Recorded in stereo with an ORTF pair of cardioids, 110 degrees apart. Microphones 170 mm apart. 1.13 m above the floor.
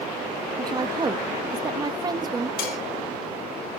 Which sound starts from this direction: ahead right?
A woman speaking, at 0.6 s.